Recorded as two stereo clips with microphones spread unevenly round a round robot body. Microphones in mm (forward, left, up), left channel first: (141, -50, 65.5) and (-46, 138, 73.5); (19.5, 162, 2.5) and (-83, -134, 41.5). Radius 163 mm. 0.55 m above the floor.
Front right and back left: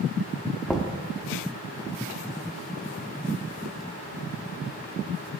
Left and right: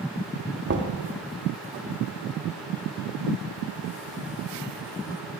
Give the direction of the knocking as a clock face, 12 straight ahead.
5 o'clock.